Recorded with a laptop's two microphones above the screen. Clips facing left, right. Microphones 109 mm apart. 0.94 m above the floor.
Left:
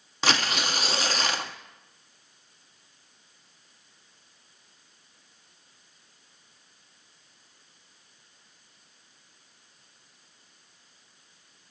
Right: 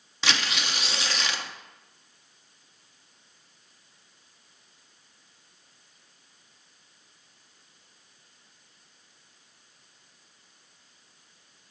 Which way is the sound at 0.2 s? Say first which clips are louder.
Left 3 dB; 40° left (ahead or behind).